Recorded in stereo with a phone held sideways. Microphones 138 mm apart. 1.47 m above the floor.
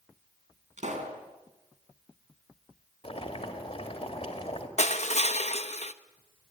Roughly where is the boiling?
Left.